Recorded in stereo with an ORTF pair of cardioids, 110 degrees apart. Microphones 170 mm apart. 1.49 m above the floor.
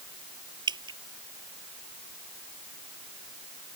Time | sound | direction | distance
0.7 | dripping | 25° right | ?